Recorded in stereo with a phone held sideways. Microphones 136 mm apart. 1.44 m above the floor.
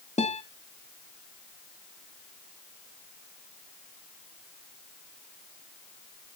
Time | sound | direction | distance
0.2 | a guitar | 60° left (ahead or behind) | 1.6 m